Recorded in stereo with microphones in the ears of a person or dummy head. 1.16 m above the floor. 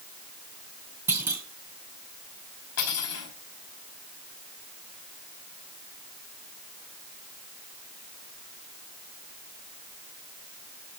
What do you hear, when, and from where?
1.1 s a clunk: 5° right (ahead or behind), 2.5 m
2.8 s cutlery clinking: 85° left, 5 m